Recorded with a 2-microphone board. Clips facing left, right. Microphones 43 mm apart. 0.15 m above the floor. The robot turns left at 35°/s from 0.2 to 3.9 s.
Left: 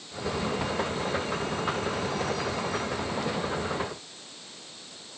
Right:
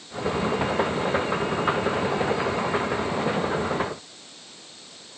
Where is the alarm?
I don't hear an alarm.